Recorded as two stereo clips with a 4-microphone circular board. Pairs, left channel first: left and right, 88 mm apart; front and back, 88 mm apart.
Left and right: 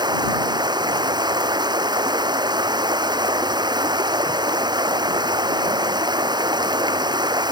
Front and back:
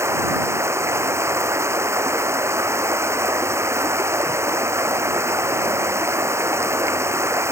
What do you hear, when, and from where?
0.0 s running water: 125° right